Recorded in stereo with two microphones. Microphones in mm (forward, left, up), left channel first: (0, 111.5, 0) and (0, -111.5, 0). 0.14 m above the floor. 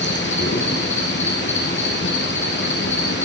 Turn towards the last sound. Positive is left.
turn(degrees=55)  # may be behind; listen again after turning